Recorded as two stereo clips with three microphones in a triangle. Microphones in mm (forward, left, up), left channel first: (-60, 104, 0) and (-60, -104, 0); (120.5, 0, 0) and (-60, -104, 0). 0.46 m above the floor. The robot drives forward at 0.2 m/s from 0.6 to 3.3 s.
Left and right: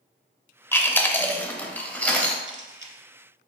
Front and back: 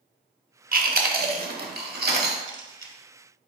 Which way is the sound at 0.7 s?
170° left.